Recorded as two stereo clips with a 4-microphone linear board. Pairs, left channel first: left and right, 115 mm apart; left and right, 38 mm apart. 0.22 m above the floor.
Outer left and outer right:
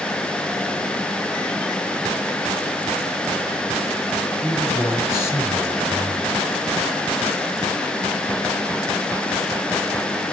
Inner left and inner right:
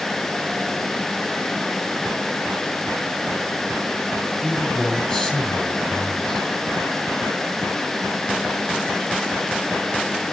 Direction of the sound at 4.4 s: 25° left (ahead or behind).